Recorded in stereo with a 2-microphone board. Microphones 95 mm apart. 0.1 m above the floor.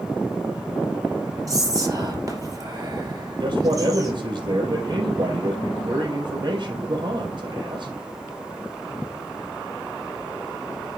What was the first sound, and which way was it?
Whispering, 35° right (ahead or behind).